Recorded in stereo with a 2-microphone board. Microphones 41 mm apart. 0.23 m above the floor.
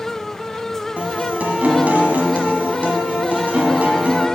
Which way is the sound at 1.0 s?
40° right (ahead or behind).